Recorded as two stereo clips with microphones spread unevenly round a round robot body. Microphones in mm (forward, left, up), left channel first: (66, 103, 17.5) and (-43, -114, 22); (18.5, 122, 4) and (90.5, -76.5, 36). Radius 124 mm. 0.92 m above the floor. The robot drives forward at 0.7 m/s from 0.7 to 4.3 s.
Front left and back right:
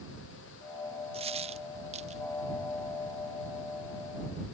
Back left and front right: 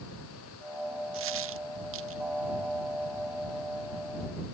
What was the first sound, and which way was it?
A dropped coin, 50° right.